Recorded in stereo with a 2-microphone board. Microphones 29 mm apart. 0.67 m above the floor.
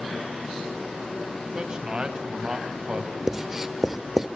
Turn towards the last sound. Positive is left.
turn(degrees=-10)  # may be behind; listen again after turning